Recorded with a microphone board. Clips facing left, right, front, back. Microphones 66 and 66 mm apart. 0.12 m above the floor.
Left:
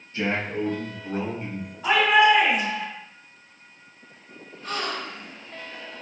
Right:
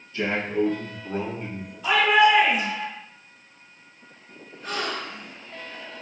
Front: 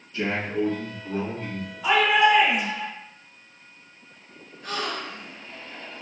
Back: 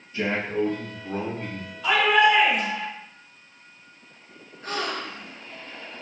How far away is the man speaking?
About 1.9 m.